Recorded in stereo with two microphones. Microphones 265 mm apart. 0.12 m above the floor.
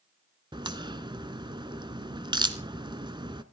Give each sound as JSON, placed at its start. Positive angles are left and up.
{"t": 0.5, "sound": "a crack", "side_deg": -15, "distance_m": 0.8}